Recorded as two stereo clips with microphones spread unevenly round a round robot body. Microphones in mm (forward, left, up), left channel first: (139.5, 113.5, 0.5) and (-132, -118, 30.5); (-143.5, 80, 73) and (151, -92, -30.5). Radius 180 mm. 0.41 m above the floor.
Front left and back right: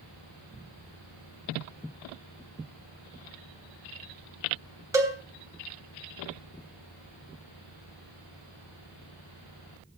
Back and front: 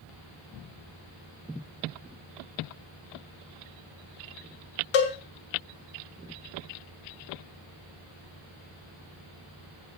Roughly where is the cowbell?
Behind left.